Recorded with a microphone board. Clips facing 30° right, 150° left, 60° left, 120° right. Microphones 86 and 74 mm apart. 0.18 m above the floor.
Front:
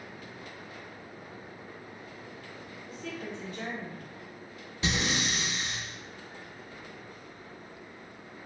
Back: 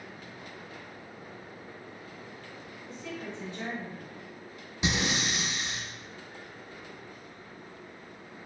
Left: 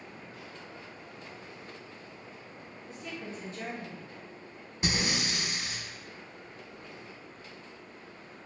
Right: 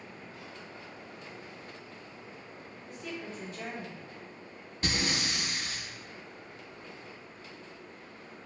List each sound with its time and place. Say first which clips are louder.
2.9 s a woman speaking: even, right 1 dB; 115° left, 1.8 m; by 4.1 s 80° left, 1.6 m
4.8 s breathing: back 1 dB, left 1 dB; 110° left, 0.7 m